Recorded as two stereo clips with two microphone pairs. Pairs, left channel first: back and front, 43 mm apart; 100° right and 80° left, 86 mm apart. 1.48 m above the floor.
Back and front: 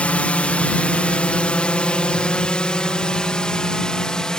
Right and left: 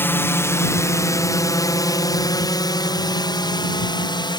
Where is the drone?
145° right; by 4.4 s 110° right.